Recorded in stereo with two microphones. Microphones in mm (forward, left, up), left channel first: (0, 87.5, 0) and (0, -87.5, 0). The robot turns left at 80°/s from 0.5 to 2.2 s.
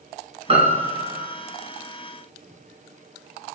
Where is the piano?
60° right, 2 m; by 1.3 s 125° right, 2 m.